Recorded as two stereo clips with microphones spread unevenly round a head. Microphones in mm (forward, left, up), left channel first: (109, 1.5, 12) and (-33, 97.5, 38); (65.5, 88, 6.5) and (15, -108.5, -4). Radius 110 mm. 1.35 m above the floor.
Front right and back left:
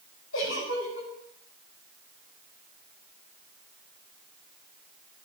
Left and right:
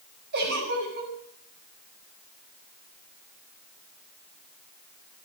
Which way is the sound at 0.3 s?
65° right.